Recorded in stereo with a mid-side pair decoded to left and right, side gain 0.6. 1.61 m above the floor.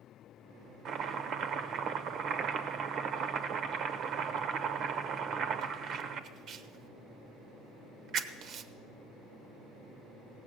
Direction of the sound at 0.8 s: 55° right.